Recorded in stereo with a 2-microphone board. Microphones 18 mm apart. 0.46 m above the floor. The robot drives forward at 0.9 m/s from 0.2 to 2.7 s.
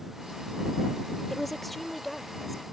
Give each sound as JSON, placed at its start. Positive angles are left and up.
{"t": 1.3, "sound": "a woman speaking", "side_deg": 10}